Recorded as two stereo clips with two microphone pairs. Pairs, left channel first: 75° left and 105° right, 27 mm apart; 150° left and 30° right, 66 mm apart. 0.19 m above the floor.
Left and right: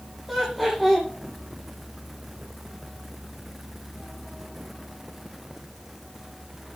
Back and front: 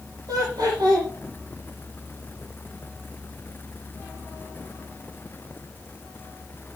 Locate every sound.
0.3 s laughter: 15° right, 7 m